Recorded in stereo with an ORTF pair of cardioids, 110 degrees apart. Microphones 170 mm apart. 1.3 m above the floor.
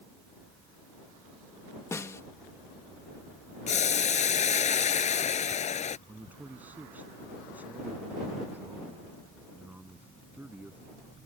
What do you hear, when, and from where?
1.9 s a snare drum: 15° left
3.7 s boiling: 45° left
6.1 s a man speaking: 10° right